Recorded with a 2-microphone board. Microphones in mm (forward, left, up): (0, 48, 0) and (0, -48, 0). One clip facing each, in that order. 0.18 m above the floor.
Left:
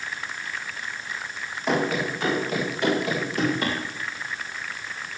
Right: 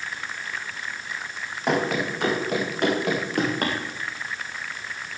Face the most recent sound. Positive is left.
turn(degrees=-65)  # may be behind; listen again after turning